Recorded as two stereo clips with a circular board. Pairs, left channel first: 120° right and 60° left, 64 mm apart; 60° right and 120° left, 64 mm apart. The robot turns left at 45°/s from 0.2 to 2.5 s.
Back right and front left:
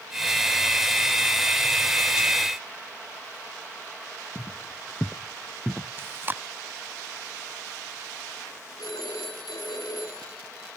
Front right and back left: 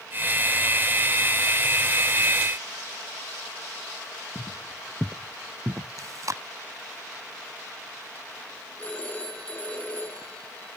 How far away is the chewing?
About 0.6 m.